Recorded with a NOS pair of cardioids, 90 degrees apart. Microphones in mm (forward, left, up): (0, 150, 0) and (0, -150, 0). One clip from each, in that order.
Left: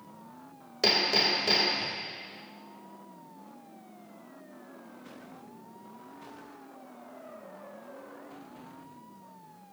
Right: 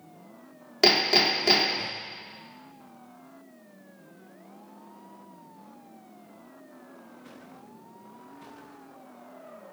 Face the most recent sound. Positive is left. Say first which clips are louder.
# right 4 dB
turn(degrees=-60)